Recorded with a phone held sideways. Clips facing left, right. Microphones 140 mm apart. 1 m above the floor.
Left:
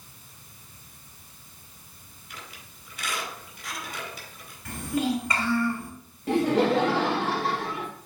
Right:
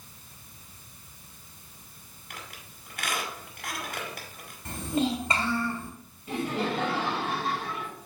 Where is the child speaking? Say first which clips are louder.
Left 1 dB; 25° right (ahead or behind), 2.5 m.